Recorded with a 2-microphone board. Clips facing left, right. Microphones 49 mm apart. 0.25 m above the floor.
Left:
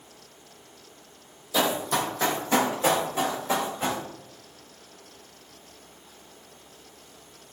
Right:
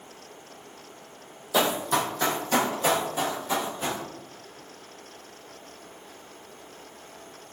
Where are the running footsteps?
25° right (ahead or behind), 0.5 m; by 4.0 s 35° left (ahead or behind), 1.6 m.